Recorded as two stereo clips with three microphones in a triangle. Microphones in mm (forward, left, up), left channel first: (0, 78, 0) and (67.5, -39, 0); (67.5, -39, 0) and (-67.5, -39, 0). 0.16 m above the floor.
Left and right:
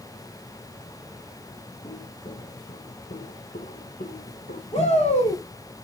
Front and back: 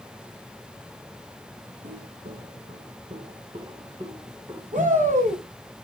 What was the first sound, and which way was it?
Footsteps, 165° left.